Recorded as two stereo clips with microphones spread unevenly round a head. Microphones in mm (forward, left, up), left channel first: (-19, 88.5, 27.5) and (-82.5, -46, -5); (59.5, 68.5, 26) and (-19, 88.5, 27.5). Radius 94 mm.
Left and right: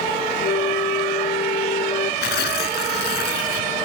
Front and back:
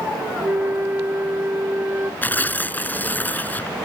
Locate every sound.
0.4 s a flute: 100° left
2.2 s tearing paper: 55° left